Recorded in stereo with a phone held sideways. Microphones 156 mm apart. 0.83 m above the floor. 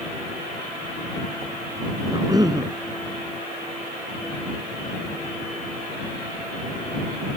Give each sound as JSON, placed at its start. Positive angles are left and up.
{"t": 2.1, "sound": "a cough", "side_deg": -25}